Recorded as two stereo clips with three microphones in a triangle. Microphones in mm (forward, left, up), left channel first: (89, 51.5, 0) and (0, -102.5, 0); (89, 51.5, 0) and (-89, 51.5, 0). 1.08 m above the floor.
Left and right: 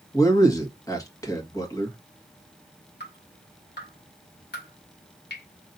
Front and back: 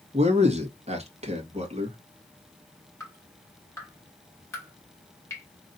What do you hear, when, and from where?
0.1 s a man speaking: 130° left, 1.6 m
3.0 s dripping: 75° left, 2.5 m